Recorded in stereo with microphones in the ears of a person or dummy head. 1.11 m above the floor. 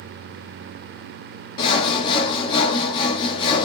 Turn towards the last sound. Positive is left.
turn(degrees=30)  # may be behind; listen again after turning